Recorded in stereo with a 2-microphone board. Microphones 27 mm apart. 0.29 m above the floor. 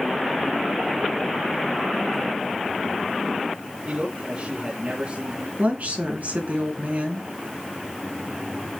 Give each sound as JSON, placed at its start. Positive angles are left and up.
{"t": 3.9, "sound": "a man speaking", "side_deg": -45, "distance_m": 3.5}
{"t": 5.6, "sound": "a woman speaking", "side_deg": -70, "distance_m": 3.5}